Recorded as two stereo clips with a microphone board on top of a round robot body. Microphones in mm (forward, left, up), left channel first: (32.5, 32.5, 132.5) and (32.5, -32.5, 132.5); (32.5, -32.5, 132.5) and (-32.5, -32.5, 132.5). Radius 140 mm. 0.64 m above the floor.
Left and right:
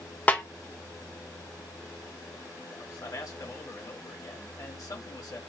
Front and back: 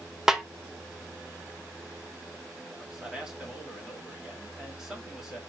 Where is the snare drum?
110° left, 1.1 m.